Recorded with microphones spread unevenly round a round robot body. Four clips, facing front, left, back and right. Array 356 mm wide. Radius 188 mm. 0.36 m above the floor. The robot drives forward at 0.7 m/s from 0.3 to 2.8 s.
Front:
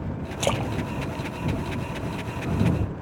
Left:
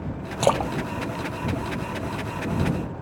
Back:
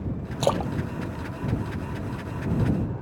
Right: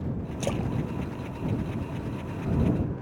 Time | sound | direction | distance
0.4 | a splash | 95° left | ?